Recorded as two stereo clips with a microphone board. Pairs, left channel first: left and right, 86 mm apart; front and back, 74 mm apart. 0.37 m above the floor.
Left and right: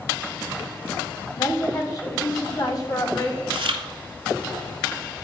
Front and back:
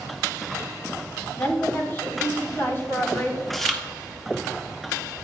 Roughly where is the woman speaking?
Ahead left.